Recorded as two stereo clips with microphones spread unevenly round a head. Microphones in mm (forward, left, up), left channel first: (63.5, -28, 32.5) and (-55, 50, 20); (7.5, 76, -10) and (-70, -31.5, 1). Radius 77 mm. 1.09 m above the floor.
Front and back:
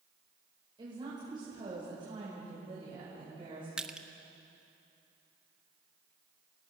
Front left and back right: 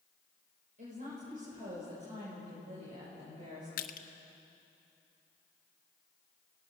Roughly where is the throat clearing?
I don't hear throat clearing.